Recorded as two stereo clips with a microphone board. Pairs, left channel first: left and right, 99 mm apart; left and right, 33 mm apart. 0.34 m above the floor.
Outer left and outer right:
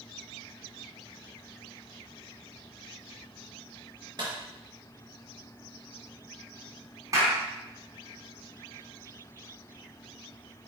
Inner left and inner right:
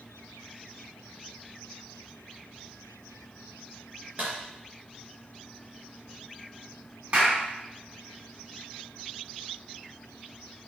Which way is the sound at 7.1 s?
35° right (ahead or behind).